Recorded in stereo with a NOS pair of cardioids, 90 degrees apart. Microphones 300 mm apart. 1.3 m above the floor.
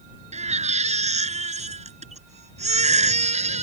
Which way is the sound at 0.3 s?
20° right.